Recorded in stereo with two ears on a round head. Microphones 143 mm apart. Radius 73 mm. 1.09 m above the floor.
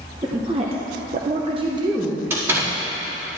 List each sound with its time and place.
0.2 s a woman speaking: 25° right (ahead or behind), 1.0 m
2.3 s a door slam: 15° right (ahead or behind), 1.7 m